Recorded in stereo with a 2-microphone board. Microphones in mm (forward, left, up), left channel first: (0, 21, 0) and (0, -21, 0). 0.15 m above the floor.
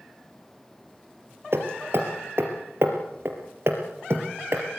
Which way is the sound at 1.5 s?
60° right (ahead or behind).